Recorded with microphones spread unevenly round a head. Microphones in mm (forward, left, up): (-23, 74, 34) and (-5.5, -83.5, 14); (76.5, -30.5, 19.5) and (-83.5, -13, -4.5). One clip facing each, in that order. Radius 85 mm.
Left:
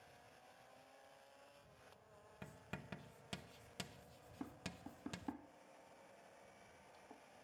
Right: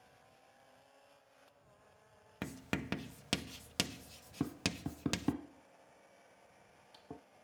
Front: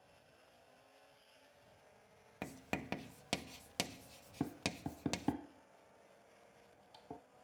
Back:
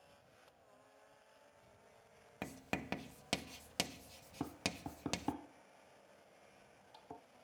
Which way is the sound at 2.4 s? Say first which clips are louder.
Right 14 dB, even; 95° right.